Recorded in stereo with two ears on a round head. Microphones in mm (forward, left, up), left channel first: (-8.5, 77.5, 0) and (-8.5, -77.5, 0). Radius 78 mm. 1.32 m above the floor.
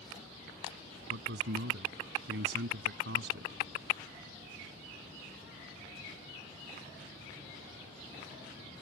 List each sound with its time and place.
1.1 s a man speaking: 70° right (ahead or behind)